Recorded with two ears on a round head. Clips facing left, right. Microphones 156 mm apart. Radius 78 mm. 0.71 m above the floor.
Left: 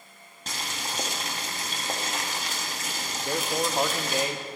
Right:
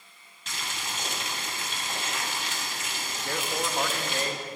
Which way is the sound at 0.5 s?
35° left (ahead or behind).